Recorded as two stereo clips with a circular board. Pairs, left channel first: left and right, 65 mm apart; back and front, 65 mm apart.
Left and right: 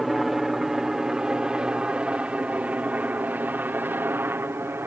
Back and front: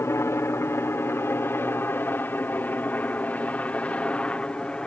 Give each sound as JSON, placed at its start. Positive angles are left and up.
{"t": 0.0, "sound": "a helicopter", "azimuth_deg": -175}